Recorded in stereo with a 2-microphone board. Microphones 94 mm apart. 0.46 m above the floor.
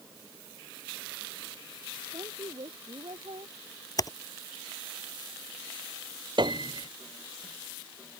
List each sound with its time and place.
2.1 s a woman speaking: 70° right (ahead or behind)
4.0 s typing on a keyboard: 40° left (ahead or behind)
6.4 s a piano: 55° right (ahead or behind)